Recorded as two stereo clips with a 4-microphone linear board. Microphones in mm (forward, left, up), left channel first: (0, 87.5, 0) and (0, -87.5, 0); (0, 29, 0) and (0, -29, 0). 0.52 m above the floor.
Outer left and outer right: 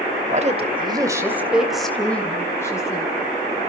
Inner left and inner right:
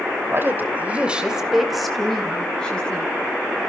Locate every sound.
0.3 s a woman speaking: 40° right (ahead or behind), 2.5 m; by 3.1 s 20° left (ahead or behind), 4 m